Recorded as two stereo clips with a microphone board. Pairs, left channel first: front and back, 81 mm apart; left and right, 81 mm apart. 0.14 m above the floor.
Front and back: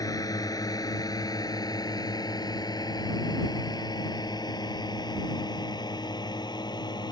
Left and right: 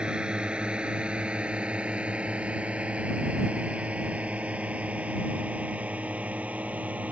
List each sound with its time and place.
0.0 s a drone: 15° right; by 7.1 s 20° right